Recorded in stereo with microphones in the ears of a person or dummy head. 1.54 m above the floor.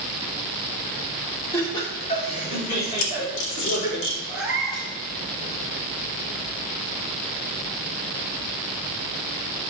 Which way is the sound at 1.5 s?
15° left (ahead or behind).